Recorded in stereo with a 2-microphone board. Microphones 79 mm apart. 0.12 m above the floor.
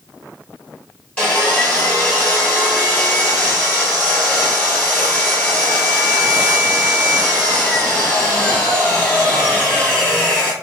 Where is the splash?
No splash in this recording.